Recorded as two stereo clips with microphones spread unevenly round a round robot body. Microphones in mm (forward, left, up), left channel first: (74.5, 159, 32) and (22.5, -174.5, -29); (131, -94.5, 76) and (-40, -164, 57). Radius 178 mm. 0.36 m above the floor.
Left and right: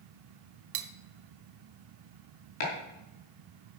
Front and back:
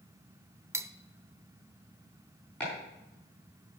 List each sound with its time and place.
0.7 s cutlery clinking: 90° right, 0.9 m
2.6 s chopping: 110° left, 5 m